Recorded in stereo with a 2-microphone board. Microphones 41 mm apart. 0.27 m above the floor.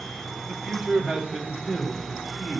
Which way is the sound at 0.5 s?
5° right (ahead or behind).